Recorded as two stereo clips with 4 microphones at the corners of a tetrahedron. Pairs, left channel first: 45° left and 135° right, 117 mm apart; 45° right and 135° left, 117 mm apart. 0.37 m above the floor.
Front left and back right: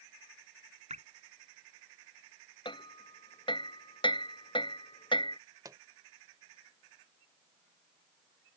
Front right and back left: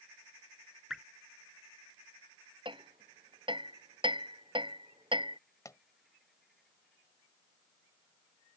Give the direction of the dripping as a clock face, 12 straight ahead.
5 o'clock.